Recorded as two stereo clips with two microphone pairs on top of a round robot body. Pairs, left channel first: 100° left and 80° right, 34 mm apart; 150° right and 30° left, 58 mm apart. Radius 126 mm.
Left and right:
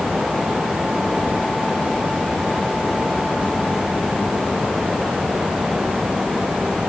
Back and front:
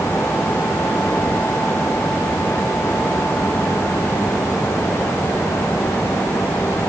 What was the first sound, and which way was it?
Only background noise.